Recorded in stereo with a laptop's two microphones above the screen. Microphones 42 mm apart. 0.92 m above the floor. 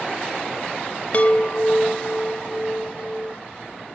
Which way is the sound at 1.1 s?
35° left (ahead or behind).